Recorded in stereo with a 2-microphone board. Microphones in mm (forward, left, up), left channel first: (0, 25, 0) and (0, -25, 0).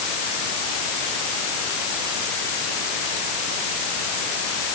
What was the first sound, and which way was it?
Only background noise.